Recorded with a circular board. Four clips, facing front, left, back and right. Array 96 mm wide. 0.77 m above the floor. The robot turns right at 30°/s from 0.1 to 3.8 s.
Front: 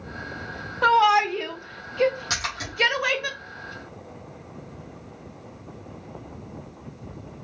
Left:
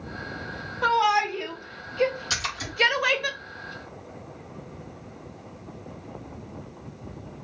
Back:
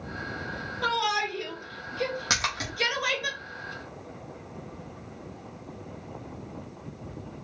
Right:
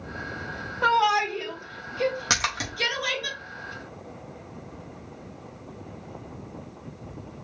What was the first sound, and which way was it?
A shout, 10° right.